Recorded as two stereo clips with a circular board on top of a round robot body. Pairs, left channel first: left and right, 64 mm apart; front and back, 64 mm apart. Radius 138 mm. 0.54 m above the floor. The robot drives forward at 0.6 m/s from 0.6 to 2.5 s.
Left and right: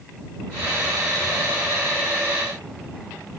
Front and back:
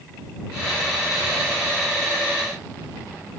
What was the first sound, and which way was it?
Only background noise.